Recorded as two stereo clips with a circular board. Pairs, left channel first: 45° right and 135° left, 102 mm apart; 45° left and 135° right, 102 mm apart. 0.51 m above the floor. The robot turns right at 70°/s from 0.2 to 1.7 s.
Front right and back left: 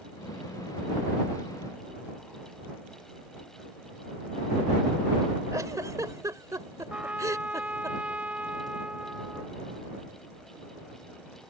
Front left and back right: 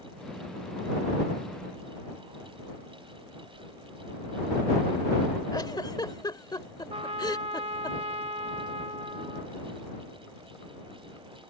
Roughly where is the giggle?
Left.